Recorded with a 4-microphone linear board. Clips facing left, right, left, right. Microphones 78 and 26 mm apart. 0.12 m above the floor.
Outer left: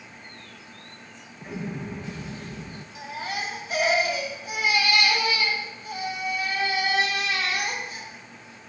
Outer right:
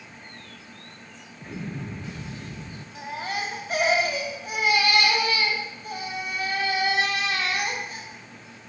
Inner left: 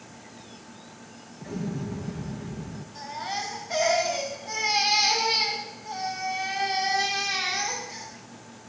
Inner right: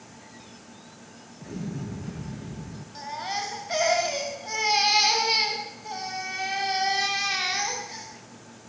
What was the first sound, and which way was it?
An explosion, 10° left (ahead or behind).